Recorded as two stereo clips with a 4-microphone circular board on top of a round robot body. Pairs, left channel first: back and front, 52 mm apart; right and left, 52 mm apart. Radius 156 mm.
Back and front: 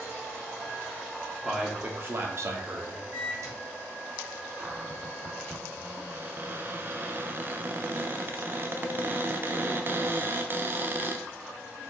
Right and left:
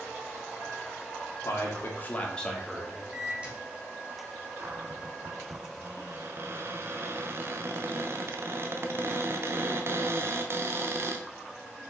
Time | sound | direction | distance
1.4 | a man speaking | 75° right | 1.6 m
3.1 | a microwave | 25° left | 4 m
4.6 | a cupboard door | 50° left | 0.7 m